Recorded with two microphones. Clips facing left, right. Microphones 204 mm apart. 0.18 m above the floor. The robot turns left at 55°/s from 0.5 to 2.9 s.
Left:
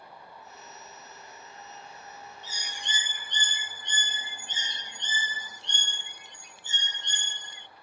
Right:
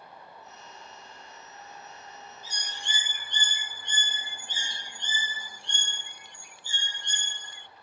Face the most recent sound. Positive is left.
turn(degrees=20)  # may be behind; listen again after turning